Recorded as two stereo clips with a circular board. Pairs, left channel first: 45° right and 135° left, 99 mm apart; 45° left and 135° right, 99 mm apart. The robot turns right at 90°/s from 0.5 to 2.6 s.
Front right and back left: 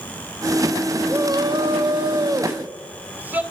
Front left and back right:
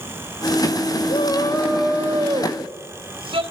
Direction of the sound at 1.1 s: 70° left.